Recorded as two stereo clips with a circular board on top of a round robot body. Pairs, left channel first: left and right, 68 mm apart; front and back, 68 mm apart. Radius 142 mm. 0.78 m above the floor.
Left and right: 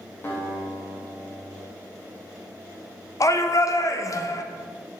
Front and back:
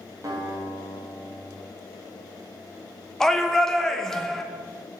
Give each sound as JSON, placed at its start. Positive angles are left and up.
{"t": 0.2, "sound": "a guitar", "azimuth_deg": 145, "distance_m": 1.4}
{"t": 3.2, "sound": "a shout", "azimuth_deg": 80, "distance_m": 0.7}